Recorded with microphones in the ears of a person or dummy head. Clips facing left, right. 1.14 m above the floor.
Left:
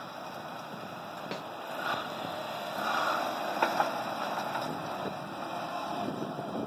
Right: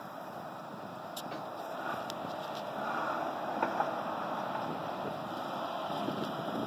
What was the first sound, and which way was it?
A snare drum, 70° left (ahead or behind).